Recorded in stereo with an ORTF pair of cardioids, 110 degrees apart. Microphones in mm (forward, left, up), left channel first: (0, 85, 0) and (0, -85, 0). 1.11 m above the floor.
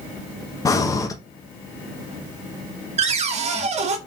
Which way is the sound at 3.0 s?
40° right.